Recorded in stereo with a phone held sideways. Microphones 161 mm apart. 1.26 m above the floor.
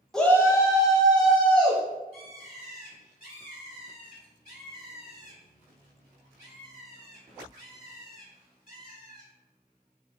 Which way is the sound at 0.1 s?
5° left (ahead or behind).